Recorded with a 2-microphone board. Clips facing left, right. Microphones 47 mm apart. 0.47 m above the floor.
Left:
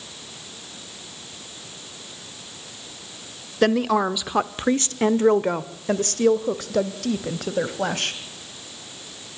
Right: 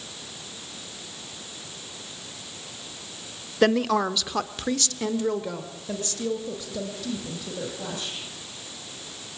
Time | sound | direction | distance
3.6 | a woman speaking | centre (ahead or behind) | 1.1 m